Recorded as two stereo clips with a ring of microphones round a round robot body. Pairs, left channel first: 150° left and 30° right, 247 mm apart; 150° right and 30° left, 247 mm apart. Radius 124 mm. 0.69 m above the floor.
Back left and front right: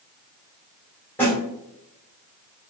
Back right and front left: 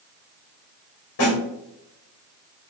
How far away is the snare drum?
About 2 m.